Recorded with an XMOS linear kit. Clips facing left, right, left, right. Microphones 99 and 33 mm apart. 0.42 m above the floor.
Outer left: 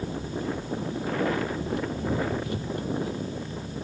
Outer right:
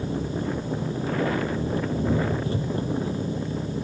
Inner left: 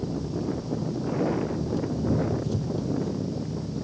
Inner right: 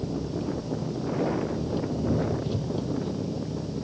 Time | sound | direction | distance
0.0 | an engine running | 30° right (ahead or behind) | ?